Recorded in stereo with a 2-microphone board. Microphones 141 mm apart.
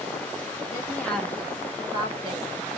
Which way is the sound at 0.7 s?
25° left (ahead or behind).